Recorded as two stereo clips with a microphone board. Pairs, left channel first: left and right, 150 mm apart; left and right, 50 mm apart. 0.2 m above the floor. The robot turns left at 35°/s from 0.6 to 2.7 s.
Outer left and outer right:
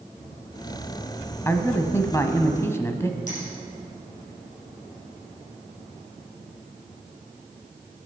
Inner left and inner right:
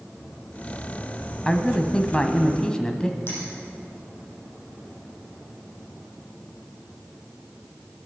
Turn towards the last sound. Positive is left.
turn(degrees=60)  # may be behind; listen again after turning